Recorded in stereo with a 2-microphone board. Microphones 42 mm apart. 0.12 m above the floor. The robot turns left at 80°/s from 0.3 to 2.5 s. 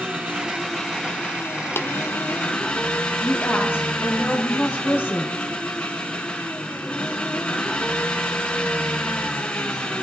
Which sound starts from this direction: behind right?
An engine running, at 0.0 s.